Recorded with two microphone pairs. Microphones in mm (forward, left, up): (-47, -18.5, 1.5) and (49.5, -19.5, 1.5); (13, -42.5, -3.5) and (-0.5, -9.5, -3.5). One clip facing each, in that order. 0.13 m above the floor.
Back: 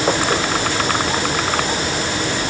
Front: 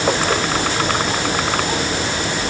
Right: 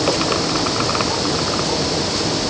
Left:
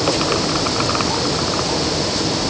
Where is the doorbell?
I don't hear a doorbell.